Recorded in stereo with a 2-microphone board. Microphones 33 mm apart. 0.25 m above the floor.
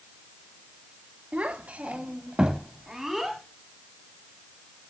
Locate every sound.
1.3 s a child speaking: 40° right (ahead or behind), 1.2 m; by 3.4 s 5° right (ahead or behind), 1.4 m